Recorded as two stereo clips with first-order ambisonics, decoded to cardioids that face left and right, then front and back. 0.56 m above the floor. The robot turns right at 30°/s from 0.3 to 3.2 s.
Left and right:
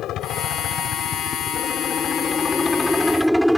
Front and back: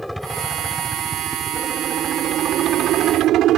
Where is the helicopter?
90° left; by 3.6 s 175° left.